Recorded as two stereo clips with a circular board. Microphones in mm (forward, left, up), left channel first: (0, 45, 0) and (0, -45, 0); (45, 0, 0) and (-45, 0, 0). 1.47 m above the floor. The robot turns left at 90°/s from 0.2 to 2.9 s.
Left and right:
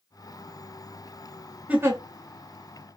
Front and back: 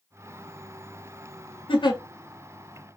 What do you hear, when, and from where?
1.7 s a giggle: 15° right, 0.7 m; by 2.0 s 45° right, 0.7 m